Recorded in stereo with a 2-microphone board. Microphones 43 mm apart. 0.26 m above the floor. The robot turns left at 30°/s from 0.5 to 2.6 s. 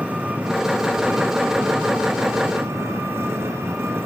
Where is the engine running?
30° right, 4 m; by 4.1 s 95° right, 4 m.